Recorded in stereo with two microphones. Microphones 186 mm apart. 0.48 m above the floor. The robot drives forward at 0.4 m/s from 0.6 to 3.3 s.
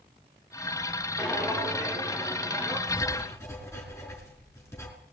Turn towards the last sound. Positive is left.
turn(degrees=15)  # may be behind; listen again after turning